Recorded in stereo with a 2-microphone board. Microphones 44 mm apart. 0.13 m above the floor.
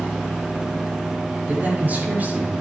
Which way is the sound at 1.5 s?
40° right (ahead or behind).